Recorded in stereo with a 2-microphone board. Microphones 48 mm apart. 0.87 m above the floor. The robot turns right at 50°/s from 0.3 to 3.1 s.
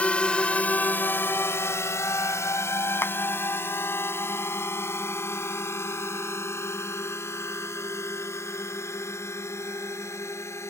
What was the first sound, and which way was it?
A drone, 30° left (ahead or behind).